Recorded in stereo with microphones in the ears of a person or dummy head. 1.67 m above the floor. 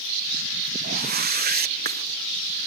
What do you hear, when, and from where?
0.8 s a whoosh: 40° right (ahead or behind)